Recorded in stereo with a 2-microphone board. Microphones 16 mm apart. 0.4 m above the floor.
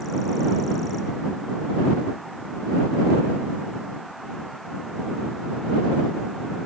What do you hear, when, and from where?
Only background noise.